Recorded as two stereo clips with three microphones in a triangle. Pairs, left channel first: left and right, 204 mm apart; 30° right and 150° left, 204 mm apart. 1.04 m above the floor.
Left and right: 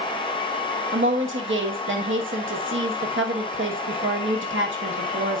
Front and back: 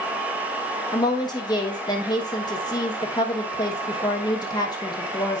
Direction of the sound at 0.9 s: 100° right.